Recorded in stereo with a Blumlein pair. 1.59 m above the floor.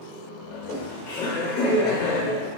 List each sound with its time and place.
0.5 s laughter: 45° left, 1.1 m